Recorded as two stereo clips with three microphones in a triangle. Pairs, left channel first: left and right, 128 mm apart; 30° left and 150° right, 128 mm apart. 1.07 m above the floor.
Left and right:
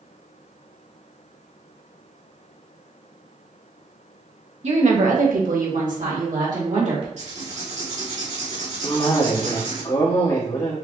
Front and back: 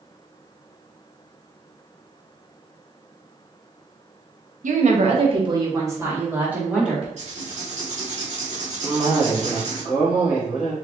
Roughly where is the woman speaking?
Behind right.